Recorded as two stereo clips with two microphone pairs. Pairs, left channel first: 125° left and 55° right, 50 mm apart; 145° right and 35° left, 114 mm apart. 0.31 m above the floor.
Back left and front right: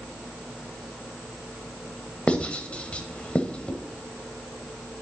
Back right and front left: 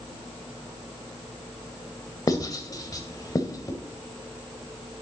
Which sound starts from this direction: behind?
Writing, at 2.3 s.